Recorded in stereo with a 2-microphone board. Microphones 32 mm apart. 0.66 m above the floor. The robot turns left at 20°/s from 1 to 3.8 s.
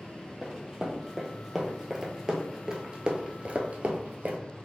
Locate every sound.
0.4 s running footsteps: 10° right (ahead or behind), 1.6 m; by 4.4 s 55° right (ahead or behind), 1.0 m